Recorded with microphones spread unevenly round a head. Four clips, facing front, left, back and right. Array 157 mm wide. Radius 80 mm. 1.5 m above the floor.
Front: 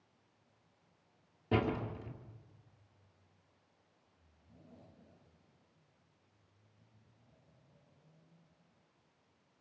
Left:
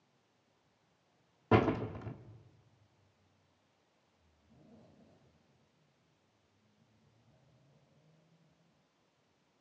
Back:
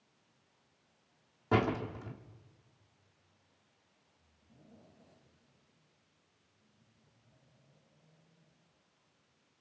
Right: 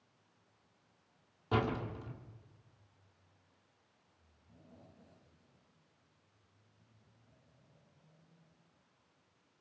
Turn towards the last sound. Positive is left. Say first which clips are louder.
# left 5 dB, back 3 dB
turn(degrees=90)